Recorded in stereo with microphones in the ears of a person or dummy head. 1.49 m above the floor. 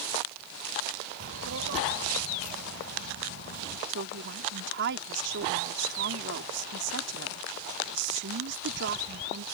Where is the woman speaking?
60° right (ahead or behind).